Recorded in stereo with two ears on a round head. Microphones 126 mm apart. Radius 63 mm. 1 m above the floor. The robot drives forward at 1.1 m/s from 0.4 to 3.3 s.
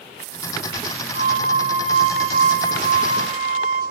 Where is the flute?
70° right (ahead or behind), 4.5 m; by 3.8 s 45° right (ahead or behind), 5.5 m.